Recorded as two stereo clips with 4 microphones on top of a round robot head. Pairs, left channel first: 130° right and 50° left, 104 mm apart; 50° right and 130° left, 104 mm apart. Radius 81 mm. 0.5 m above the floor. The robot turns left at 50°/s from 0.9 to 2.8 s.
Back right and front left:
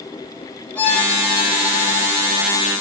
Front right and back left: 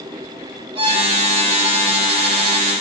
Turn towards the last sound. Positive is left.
turn(degrees=65)